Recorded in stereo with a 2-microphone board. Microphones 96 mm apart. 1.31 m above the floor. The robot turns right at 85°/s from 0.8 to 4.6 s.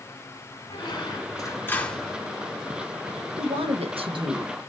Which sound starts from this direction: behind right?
A woman speaking, at 3.4 s.